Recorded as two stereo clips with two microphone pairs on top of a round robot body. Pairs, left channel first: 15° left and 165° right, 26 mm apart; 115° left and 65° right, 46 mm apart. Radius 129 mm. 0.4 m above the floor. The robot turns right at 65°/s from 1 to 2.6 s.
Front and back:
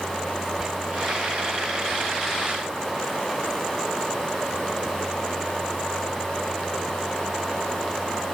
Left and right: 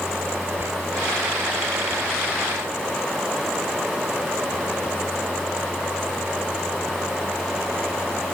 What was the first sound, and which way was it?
Whispering, 100° right.